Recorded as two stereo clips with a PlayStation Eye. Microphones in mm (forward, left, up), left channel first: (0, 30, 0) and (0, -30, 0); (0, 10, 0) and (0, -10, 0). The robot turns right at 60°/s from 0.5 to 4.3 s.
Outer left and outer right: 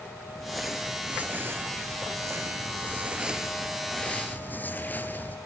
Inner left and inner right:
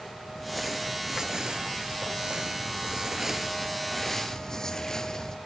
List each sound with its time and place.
0.3 s crumpling: 175° left, 2.5 m; by 5.4 s 40° left, 2.5 m